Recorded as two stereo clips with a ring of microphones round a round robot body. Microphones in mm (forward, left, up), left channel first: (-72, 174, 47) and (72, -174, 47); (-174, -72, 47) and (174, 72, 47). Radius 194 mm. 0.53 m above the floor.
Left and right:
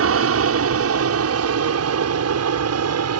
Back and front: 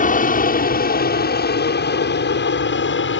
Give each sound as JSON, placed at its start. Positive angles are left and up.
{"t": 0.0, "sound": "an aircraft", "azimuth_deg": -100}